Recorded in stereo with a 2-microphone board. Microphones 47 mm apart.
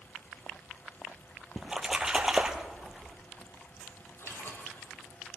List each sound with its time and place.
1.6 s a splash: 10° right (ahead or behind), 1.0 m
4.2 s a splash: 60° left (ahead or behind), 2 m